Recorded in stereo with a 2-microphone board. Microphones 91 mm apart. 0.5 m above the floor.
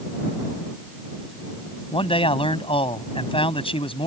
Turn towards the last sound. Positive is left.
turn(degrees=70)  # may be behind; listen again after turning